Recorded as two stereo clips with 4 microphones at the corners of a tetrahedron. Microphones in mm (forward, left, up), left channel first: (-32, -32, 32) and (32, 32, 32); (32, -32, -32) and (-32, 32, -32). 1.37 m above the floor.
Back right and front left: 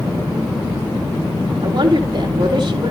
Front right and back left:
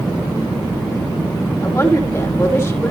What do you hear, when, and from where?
1.6 s a woman speaking: 15° left, 3.5 m